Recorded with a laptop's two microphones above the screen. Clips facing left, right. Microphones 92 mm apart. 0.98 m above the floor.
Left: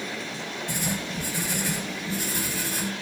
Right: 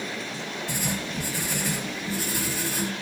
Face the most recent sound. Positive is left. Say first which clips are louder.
# left 1 dB
turn(degrees=0)  # may be behind; listen again after turning